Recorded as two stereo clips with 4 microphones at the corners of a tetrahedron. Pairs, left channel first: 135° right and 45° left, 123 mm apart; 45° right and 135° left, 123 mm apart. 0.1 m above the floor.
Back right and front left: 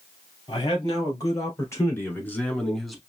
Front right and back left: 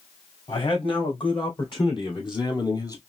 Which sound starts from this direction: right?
A man speaking, at 0.5 s.